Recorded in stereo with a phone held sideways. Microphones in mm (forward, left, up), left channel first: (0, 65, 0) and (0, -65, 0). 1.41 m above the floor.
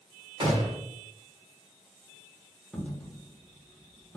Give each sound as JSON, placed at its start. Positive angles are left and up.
{"t": 0.4, "sound": "a gunshot", "side_deg": -40, "distance_m": 0.9}
{"t": 2.7, "sound": "a dropped coin", "side_deg": 10, "distance_m": 0.9}